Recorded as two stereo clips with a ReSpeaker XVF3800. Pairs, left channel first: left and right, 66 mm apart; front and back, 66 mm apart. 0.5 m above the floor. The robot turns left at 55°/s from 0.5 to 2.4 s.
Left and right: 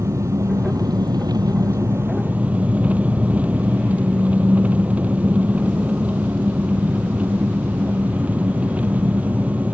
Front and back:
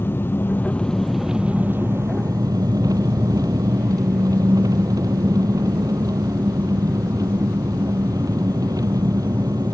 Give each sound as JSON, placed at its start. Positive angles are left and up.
{"t": 0.0, "sound": "an engine running", "azimuth_deg": -55}